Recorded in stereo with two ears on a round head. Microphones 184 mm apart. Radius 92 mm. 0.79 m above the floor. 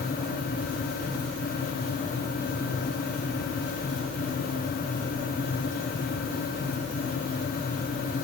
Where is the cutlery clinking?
No cutlery clinking in this recording.